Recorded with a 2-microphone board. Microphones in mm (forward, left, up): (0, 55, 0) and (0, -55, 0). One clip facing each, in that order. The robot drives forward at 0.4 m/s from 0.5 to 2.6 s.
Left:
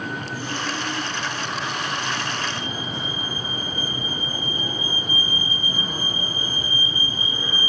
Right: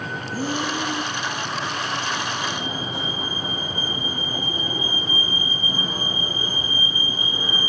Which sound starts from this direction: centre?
A fire alarm, at 2.4 s.